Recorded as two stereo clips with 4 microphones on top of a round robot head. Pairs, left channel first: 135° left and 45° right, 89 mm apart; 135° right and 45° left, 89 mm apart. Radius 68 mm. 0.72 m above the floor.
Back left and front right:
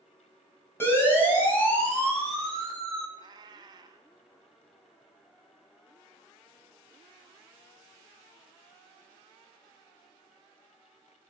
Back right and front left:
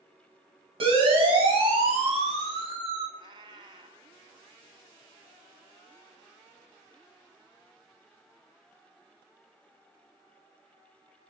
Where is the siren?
70° left, 7 m; by 3.0 s 50° left, 7.5 m.